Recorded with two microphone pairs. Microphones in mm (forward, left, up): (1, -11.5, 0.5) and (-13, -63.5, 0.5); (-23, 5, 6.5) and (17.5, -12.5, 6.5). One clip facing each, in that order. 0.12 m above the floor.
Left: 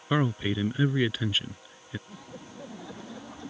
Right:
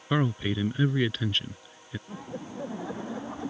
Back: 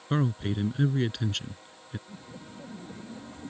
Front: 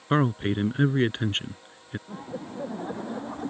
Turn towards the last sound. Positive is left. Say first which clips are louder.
# right 6 dB, front 9 dB
turn(degrees=-45)